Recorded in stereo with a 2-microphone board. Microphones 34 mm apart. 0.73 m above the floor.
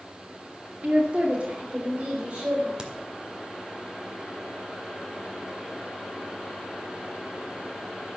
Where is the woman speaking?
40° right (ahead or behind), 2 m.